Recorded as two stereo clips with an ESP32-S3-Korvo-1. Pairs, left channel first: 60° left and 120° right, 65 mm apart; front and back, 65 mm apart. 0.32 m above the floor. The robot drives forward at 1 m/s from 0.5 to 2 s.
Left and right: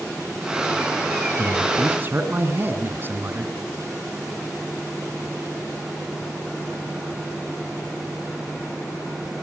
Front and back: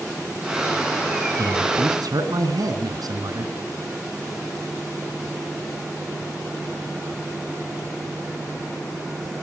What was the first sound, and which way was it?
A man speaking, 175° right.